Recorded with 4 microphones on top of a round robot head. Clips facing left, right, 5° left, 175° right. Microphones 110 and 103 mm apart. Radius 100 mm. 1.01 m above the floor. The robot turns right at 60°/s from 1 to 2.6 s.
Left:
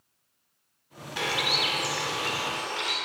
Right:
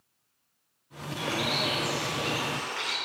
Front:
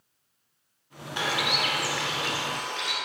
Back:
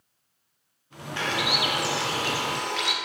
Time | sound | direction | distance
1.2 | a bird | 75° left | 1.5 m